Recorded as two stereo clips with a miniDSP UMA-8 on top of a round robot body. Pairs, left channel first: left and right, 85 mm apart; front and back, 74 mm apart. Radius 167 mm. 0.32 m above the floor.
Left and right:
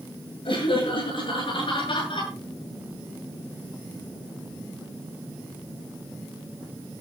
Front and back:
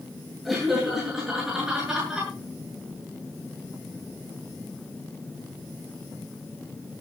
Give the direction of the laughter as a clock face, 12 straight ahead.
9 o'clock.